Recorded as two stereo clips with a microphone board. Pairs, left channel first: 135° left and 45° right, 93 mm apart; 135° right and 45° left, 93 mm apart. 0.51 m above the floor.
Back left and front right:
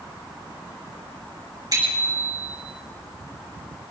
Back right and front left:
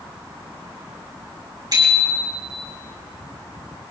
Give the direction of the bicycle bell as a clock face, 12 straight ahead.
12 o'clock.